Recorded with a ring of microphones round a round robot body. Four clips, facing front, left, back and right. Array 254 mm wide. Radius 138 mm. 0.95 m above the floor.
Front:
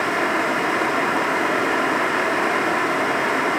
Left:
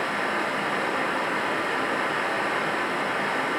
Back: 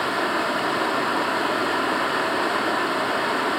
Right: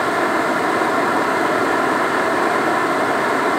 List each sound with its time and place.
0.0 s running water: 80° right, 1.4 m